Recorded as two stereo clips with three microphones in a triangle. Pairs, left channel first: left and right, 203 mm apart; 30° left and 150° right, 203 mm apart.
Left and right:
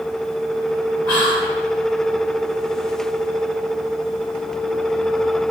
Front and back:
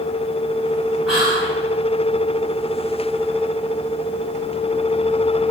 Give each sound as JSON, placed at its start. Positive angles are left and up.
{"t": 1.1, "sound": "whispering", "azimuth_deg": 125, "distance_m": 1.1}